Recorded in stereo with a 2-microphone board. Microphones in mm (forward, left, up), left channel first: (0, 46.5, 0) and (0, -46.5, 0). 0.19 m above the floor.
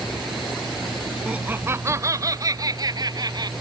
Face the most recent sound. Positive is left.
turn(degrees=-50)  # may be behind; listen again after turning